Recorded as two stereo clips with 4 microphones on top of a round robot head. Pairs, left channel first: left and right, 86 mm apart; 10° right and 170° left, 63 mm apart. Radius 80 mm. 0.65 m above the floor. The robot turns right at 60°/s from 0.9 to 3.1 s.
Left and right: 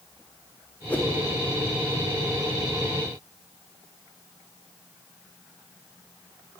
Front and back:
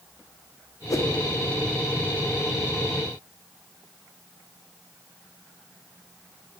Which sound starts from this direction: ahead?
A whoosh, at 0.9 s.